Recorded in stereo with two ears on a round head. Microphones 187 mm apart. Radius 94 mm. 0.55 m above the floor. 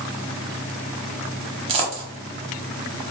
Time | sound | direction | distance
1.7 | a dropped coin | 25° right (ahead or behind) | 0.8 m